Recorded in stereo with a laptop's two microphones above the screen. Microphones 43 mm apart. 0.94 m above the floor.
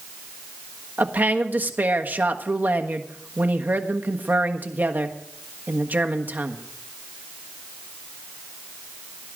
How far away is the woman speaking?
About 1.3 m.